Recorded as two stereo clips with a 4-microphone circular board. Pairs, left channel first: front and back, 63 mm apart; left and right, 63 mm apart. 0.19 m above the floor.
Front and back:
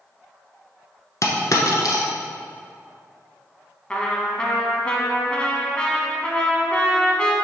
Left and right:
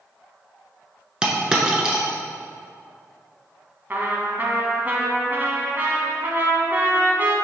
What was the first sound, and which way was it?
A dropped coin, 15° right.